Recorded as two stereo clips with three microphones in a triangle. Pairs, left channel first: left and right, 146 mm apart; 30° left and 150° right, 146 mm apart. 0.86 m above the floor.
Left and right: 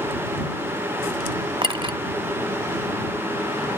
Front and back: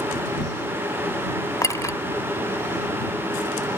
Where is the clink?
40° right.